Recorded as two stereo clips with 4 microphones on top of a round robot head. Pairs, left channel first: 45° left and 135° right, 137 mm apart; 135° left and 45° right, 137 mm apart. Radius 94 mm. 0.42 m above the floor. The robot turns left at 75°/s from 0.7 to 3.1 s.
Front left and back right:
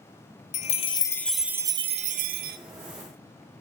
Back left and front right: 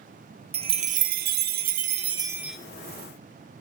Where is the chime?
5° left, 0.6 m; by 2.6 s 135° right, 0.6 m.